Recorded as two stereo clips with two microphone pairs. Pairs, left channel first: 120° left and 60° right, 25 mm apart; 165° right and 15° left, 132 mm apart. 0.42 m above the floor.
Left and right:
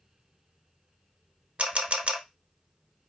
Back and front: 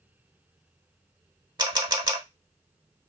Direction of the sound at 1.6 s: 40° right.